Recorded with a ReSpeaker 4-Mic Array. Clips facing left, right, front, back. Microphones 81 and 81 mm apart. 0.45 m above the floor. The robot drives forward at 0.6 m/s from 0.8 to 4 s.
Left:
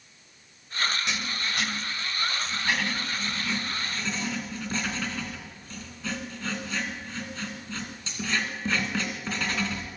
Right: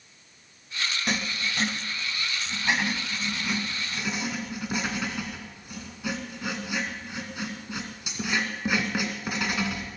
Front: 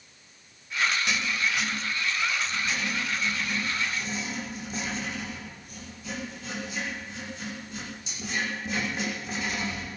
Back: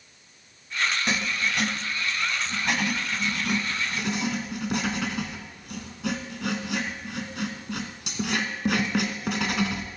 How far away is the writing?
About 0.7 m.